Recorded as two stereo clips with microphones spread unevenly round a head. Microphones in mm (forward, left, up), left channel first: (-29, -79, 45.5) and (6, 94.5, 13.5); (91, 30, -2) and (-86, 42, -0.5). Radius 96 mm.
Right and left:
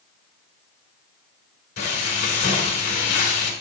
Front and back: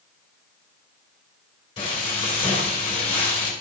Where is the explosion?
I don't hear an explosion.